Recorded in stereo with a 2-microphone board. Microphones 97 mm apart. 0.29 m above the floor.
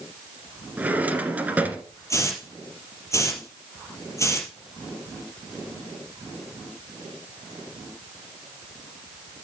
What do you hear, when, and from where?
0.8 s a drawer: 15° right (ahead or behind), 1.8 m
2.1 s a hiss: 30° left (ahead or behind), 3.5 m